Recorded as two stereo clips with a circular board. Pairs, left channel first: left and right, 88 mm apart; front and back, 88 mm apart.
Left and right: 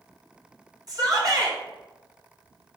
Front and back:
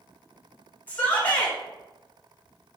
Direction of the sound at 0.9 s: 65° right.